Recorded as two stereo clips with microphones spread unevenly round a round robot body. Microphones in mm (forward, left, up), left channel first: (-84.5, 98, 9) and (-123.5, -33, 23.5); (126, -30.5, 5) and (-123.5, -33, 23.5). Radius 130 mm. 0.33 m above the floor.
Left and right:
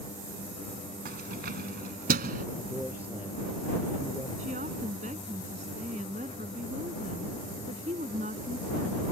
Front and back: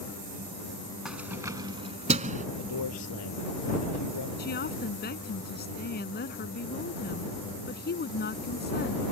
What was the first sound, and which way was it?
Keys jangling, 90° right.